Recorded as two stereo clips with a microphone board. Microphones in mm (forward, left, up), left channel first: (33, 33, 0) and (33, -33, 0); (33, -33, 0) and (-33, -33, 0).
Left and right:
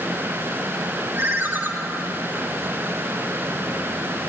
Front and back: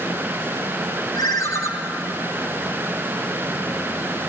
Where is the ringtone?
35° right, 2.5 m.